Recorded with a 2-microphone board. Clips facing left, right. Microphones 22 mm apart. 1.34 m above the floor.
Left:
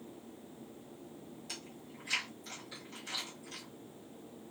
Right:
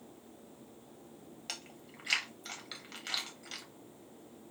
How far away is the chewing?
About 1.2 m.